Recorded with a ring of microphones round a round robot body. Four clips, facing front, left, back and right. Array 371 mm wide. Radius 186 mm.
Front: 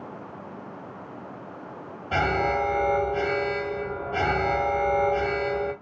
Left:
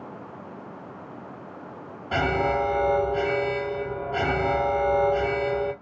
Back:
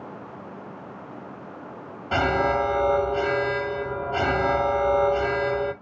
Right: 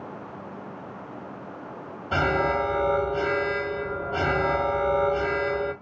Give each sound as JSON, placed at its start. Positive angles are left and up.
{"t": 2.1, "sound": "an alarm", "azimuth_deg": 180, "distance_m": 1.5}